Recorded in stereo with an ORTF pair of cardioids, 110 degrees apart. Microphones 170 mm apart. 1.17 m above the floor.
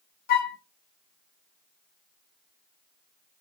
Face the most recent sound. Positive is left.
turn(degrees=60)